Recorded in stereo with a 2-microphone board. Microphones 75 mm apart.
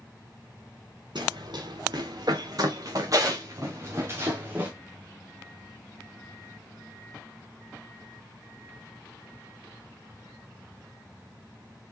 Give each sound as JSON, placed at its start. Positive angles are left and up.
{"t": 1.1, "sound": "running footsteps", "side_deg": -70, "distance_m": 4.0}